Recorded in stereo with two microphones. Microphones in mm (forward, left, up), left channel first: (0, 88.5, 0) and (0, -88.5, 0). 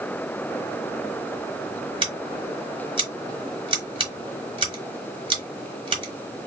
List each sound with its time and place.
2.0 s scissors: 30° right (ahead or behind), 1.1 m